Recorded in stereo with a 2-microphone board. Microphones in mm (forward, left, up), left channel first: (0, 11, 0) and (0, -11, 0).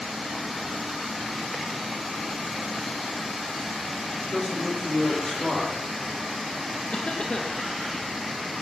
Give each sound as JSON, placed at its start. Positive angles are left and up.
{"t": 4.2, "sound": "a man speaking", "side_deg": 35, "distance_m": 5.5}
{"t": 6.9, "sound": "a cough", "side_deg": 55, "distance_m": 1.7}